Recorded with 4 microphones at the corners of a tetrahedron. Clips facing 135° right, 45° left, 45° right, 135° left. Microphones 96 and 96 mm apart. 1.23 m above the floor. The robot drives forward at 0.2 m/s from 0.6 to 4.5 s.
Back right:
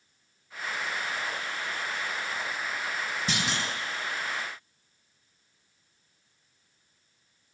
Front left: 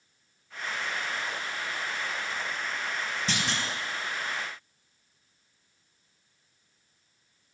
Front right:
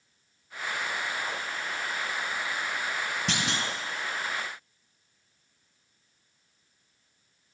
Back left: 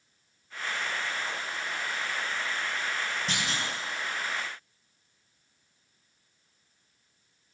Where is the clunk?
60° right, 1.1 m.